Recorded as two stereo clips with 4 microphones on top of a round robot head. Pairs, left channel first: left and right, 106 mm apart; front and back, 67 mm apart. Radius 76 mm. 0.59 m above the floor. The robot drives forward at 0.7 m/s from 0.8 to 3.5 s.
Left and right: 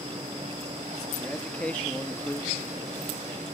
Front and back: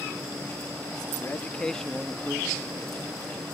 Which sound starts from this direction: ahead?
A man speaking, at 1.2 s.